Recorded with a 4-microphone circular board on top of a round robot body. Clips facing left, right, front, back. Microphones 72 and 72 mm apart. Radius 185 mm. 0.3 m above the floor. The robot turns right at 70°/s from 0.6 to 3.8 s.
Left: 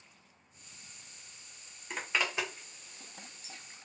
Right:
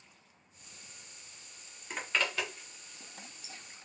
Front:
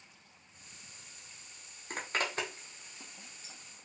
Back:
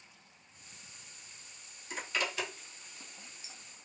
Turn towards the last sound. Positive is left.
turn(degrees=125)